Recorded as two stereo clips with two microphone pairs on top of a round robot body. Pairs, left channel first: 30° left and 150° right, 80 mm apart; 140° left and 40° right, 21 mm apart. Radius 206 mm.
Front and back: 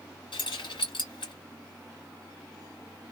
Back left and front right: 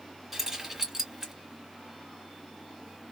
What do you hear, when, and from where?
0.3 s keys jangling: 35° left, 2.5 m